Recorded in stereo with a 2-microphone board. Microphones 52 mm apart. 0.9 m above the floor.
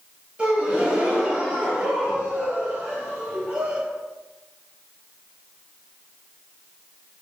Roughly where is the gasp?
Centre.